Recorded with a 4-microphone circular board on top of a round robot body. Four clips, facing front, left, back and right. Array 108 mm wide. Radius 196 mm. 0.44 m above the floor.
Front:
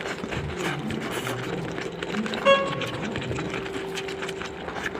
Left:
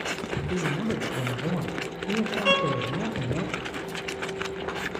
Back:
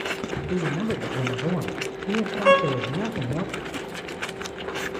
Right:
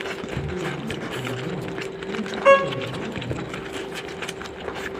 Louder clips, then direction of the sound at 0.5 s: Left 4 dB, back 6 dB; 155° left.